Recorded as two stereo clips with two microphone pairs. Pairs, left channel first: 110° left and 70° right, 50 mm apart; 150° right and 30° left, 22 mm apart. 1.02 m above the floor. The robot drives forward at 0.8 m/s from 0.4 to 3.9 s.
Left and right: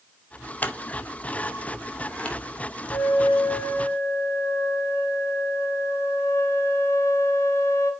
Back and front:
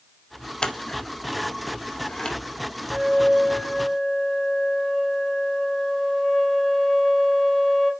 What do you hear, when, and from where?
0.6 s scissors: 165° left, 1.0 m; by 2.4 s 175° left, 2.5 m
2.9 s a flute: 115° left, 1.3 m; by 7.9 s 140° left, 1.8 m